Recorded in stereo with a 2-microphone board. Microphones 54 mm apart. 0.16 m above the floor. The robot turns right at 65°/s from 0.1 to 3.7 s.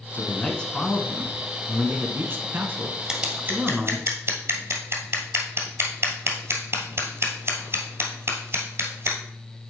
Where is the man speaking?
120° left, 1.4 m; by 4.1 s 10° right, 1.4 m.